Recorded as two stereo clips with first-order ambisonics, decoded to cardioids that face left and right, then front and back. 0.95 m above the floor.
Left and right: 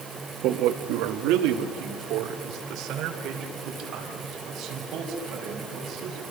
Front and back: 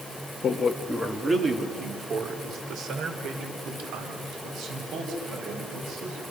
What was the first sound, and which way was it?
A man speaking, 65° right.